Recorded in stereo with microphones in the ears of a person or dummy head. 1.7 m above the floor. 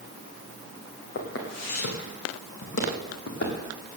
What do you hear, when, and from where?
1.1 s footsteps: 55° left (ahead or behind), 3.5 m; by 3.7 s 60° left (ahead or behind), 4 m